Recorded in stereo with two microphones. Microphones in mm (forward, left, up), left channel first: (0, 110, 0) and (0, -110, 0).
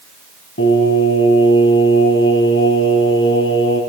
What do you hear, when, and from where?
0.6 s singing: 70° left (ahead or behind), 2.5 m